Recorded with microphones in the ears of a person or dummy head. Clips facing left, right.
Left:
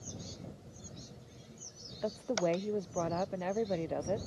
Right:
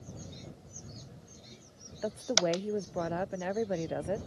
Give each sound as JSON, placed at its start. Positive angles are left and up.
{"t": 2.0, "sound": "a woman speaking", "side_deg": -5}